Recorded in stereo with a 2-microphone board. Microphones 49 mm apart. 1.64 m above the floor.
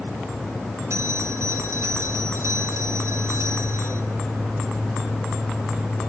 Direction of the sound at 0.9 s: 75° right (ahead or behind).